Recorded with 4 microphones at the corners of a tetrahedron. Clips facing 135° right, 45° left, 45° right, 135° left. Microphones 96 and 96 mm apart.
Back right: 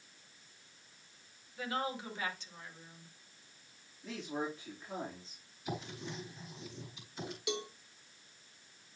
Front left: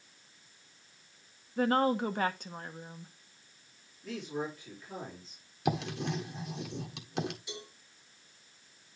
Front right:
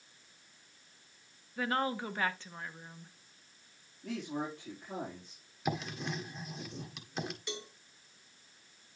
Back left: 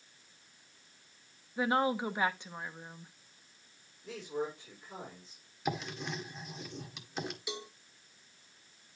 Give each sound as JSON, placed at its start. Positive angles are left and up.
{"t": 1.6, "sound": "a woman speaking", "azimuth_deg": 65, "distance_m": 1.1}
{"t": 4.0, "sound": "a man speaking", "azimuth_deg": -75, "distance_m": 4.5}
{"t": 5.7, "sound": "writing", "azimuth_deg": 45, "distance_m": 1.5}
{"t": 7.5, "sound": "a cowbell", "azimuth_deg": -145, "distance_m": 1.8}